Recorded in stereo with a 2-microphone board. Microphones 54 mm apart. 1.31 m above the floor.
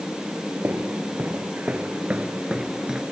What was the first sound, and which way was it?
Footsteps, 40° right (ahead or behind).